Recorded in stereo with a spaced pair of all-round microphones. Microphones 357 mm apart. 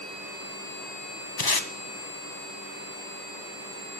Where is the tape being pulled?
85° left, 0.8 m.